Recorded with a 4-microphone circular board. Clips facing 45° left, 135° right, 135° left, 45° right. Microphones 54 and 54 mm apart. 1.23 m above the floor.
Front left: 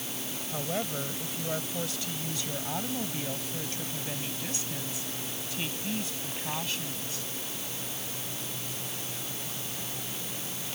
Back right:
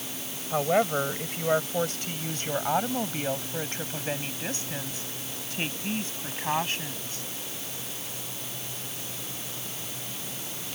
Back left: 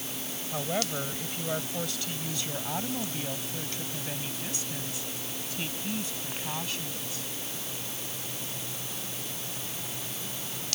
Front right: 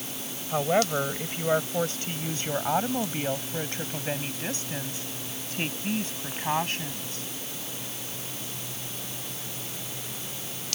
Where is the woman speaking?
100° right; by 7.2 s 85° right.